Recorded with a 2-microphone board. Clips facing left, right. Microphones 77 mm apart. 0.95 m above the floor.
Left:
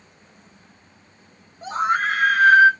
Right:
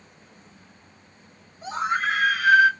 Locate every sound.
1.6 s a scream: 50° left (ahead or behind), 1.2 m; by 2.7 s 30° left (ahead or behind), 0.6 m